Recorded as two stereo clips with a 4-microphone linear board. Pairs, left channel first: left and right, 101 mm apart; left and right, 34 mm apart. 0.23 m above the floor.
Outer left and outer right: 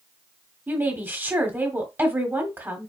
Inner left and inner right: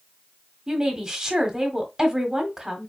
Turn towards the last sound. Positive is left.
turn(degrees=-20)  # may be behind; listen again after turning